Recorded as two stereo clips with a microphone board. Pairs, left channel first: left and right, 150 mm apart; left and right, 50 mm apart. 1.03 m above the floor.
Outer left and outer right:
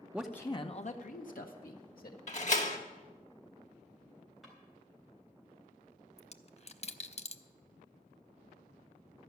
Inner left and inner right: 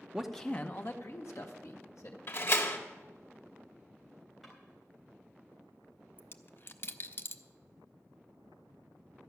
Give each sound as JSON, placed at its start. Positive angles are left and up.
{"t": 0.1, "sound": "a man speaking", "side_deg": -10, "distance_m": 0.5}
{"t": 2.3, "sound": "a door slam", "side_deg": 55, "distance_m": 1.2}
{"t": 4.4, "sound": "a drawer", "side_deg": 0, "distance_m": 4.0}
{"t": 6.2, "sound": "a dropped coin", "side_deg": 45, "distance_m": 0.5}